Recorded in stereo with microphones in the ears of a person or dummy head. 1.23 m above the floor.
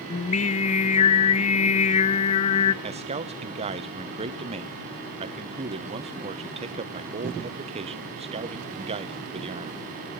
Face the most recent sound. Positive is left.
turn(degrees=-30)  # may be behind; listen again after turning